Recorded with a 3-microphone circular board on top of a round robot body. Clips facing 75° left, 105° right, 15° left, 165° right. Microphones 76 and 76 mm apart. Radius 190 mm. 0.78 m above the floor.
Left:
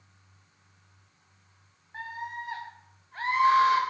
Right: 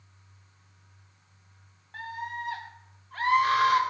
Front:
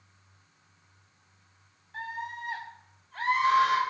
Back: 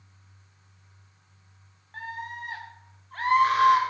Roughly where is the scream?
Behind right.